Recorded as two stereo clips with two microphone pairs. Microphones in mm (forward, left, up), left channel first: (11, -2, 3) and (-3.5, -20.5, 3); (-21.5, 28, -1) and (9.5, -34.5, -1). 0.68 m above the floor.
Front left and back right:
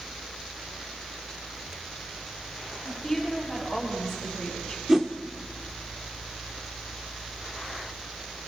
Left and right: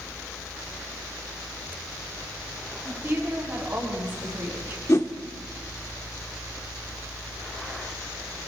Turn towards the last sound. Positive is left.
turn(degrees=160)